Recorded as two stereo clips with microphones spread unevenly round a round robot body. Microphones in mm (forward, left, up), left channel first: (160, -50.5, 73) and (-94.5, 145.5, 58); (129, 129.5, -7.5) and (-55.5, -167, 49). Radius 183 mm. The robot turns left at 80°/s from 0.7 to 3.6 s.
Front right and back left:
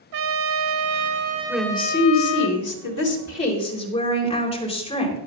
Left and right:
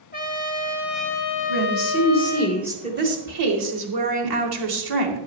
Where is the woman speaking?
60° left, 2.5 m; by 5.2 s 110° right, 2.5 m.